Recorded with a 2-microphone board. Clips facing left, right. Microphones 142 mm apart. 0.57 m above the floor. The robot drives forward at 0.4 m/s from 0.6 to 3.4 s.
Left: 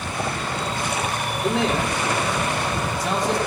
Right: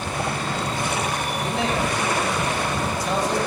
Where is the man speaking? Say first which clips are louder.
Left 3 dB; 80° left, 5.5 m.